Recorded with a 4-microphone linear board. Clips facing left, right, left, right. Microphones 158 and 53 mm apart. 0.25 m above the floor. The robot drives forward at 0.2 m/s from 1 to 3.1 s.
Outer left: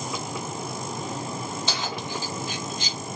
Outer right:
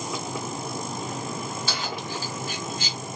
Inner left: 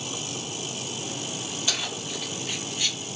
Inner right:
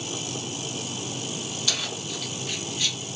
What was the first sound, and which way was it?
Keys jangling, 20° left (ahead or behind).